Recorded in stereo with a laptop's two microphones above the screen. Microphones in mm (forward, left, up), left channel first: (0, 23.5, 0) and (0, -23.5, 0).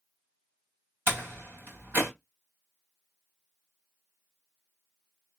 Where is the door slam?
50° right (ahead or behind), 2.5 m.